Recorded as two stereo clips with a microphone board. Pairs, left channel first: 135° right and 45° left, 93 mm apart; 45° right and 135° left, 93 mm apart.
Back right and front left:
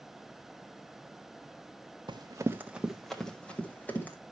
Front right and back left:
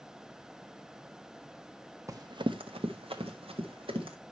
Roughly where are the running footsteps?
Left.